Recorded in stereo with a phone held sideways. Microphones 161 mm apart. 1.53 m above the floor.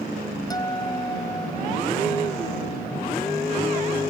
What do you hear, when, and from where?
0.5 s a guitar: 25° left (ahead or behind)